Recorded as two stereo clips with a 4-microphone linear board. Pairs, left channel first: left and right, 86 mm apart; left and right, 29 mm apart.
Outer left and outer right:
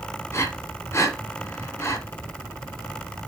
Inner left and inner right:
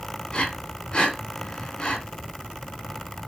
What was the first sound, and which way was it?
Breathing, 30° left (ahead or behind).